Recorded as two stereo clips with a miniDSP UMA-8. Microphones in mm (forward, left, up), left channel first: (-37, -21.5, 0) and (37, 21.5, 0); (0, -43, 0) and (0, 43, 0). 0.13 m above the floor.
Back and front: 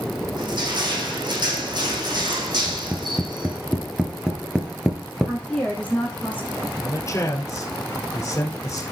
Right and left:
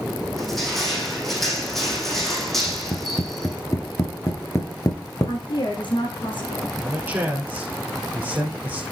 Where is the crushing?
Straight ahead, 5 m.